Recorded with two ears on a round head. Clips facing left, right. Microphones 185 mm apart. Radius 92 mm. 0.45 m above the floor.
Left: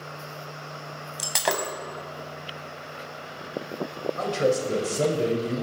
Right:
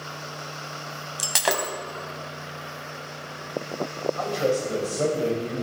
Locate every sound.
1.2 s breaking glass: centre (ahead or behind), 1.0 m
4.2 s a man speaking: 35° left (ahead or behind), 2.5 m